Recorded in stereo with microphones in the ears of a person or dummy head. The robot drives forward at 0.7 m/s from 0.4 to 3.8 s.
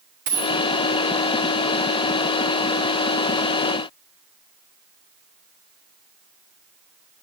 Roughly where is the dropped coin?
Right.